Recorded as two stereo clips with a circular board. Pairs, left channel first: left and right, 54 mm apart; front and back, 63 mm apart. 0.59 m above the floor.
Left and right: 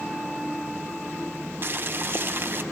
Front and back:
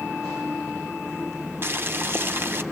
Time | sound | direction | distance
1.6 | boiling | 130° right | 0.7 m